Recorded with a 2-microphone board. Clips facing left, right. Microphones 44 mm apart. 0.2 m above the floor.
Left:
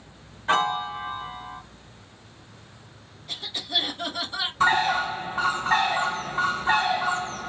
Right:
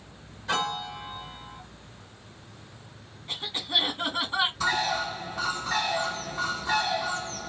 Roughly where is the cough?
Right.